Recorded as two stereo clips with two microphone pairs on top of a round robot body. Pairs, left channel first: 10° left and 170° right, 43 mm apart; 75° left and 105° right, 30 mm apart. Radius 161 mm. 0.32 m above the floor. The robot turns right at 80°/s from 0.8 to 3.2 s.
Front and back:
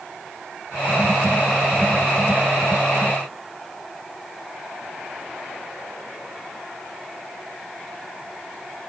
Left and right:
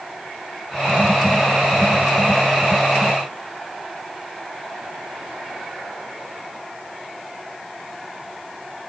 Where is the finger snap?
I don't hear a finger snap.